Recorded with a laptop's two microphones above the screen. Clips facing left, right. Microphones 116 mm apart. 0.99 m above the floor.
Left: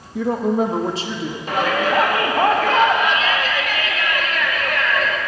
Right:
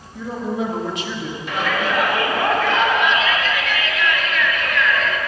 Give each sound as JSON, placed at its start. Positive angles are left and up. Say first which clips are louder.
{"t": 0.1, "sound": "a woman speaking", "louder": "left 6 dB", "side_deg": 75, "distance_m": 0.6}
{"t": 1.5, "sound": "a shout", "louder": "left 3 dB", "side_deg": 40, "distance_m": 1.8}